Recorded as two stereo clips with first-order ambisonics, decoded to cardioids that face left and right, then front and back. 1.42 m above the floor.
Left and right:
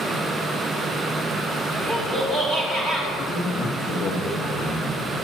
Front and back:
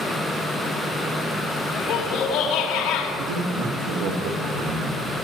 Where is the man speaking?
160° left, 1.6 m.